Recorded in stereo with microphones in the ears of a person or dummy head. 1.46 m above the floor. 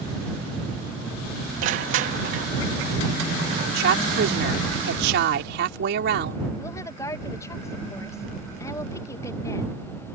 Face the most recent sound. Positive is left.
turn(degrees=15)  # may be behind; listen again after turning